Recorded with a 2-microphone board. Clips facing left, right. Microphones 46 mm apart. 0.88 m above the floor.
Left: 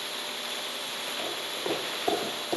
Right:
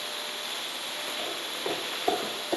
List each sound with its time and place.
1.2 s footsteps: 5° left (ahead or behind), 2.5 m; by 2.6 s 5° right (ahead or behind), 1.4 m